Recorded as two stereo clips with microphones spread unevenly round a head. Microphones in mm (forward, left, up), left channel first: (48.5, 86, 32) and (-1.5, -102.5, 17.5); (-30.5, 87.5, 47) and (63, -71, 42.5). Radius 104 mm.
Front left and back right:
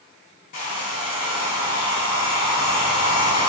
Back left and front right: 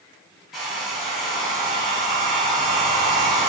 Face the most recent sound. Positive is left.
turn(degrees=30)